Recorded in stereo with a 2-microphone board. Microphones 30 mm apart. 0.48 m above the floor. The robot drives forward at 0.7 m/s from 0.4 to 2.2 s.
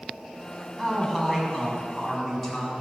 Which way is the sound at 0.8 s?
5° left (ahead or behind).